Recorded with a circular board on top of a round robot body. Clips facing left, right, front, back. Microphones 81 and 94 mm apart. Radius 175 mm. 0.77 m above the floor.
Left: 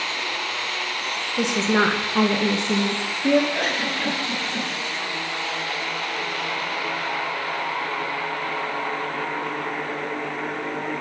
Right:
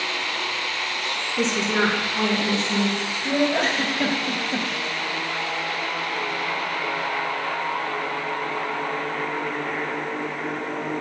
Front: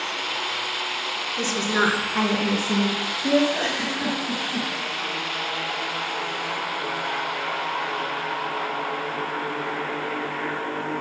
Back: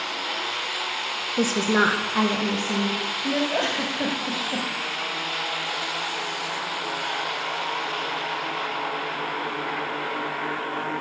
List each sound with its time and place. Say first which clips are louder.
1.4 s a woman speaking: left 2 dB, back 3 dB; 170° left, 1.1 m; by 3.4 s 75° left, 2 m
3.5 s a giggle: right 2 dB, back 1 dB; 150° right, 1.8 m